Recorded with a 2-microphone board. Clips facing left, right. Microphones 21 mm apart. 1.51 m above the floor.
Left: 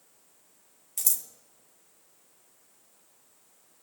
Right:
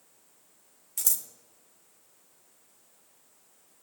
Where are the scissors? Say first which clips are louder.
Even; 5° left (ahead or behind), 0.8 m.